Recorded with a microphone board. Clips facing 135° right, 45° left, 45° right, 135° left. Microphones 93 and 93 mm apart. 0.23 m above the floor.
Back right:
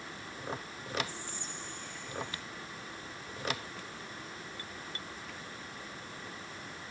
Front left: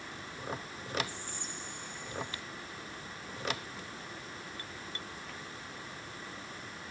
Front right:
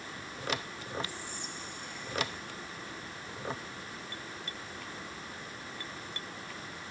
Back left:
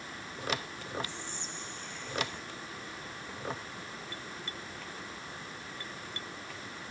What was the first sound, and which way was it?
Whispering, 20° left.